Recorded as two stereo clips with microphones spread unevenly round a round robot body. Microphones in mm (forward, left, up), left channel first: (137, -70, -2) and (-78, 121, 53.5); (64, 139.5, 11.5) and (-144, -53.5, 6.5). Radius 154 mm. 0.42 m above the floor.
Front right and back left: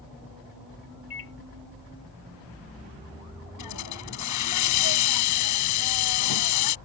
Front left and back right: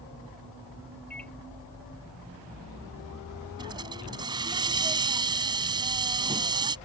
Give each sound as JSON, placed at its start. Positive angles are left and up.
{"t": 1.1, "sound": "a microwave", "azimuth_deg": -45}
{"t": 3.6, "sound": "a hiss", "azimuth_deg": -60}